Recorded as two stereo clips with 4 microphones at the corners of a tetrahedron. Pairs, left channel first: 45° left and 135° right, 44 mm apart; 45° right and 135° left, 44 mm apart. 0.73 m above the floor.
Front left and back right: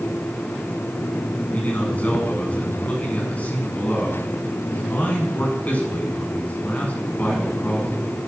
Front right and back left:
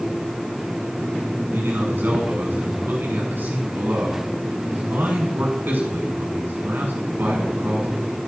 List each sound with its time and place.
1.5 s a man speaking: 95° left, 8 m